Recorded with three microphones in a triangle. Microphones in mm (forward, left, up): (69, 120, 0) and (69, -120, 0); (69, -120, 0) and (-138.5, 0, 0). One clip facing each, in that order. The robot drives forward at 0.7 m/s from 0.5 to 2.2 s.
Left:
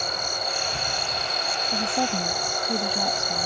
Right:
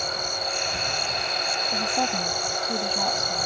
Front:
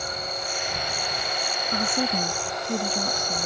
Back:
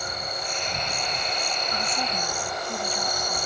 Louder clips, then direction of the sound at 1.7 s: Left 2 dB, front 9 dB; 10° left.